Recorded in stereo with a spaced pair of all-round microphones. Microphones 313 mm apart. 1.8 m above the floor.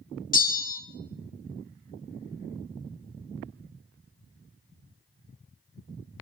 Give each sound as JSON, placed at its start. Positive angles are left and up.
{"t": 0.3, "sound": "a bell", "side_deg": 25, "distance_m": 0.8}